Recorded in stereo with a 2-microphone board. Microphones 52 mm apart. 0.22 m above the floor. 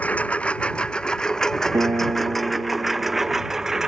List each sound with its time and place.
0.0 s a lawn mower: 30° left (ahead or behind); by 3.9 s 10° right (ahead or behind)
1.7 s a piano: 75° right (ahead or behind)